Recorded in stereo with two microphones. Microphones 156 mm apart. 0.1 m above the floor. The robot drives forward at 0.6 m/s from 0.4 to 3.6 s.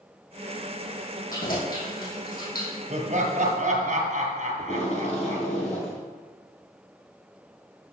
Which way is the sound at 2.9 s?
55° right (ahead or behind).